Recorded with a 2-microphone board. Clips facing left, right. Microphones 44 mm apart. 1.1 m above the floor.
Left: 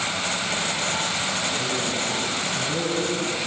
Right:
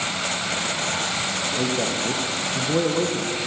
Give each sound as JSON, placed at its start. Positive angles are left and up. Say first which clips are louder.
{"t": 1.6, "sound": "a man speaking", "louder": "right 2 dB", "side_deg": -40, "distance_m": 0.6}